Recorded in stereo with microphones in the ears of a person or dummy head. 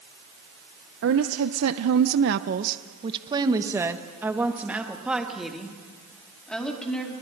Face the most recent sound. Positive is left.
turn(degrees=0)  # may be behind; listen again after turning